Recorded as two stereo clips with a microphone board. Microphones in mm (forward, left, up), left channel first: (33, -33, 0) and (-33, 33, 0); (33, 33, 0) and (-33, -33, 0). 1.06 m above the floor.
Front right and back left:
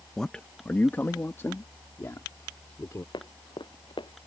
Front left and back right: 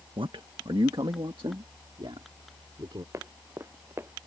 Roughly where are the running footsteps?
Right.